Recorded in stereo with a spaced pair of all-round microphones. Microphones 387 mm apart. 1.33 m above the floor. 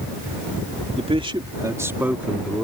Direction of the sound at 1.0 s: 15° right (ahead or behind).